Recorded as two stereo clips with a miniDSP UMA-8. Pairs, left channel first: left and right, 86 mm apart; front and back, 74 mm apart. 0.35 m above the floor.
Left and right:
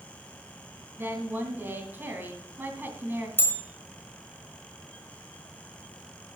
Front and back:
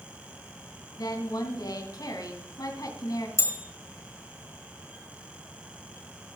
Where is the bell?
35° left, 1.9 m.